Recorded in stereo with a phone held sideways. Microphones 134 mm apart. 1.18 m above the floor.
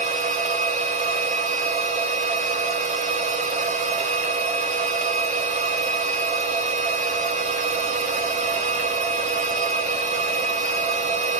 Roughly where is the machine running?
Right.